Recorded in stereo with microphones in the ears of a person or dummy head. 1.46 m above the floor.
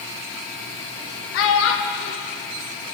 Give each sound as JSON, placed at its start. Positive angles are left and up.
{"t": 1.3, "sound": "a child speaking", "side_deg": 70, "distance_m": 1.1}